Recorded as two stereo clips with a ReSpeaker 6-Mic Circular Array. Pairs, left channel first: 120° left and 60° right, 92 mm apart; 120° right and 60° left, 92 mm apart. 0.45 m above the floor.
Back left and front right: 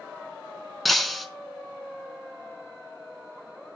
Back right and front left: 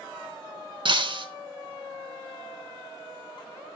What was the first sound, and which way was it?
Breaking glass, 30° left.